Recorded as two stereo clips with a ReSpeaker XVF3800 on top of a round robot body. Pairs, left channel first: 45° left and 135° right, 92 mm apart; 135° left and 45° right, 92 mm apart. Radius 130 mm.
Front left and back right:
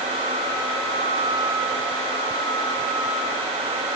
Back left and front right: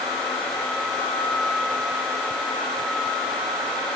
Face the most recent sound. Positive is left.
No sound to turn to.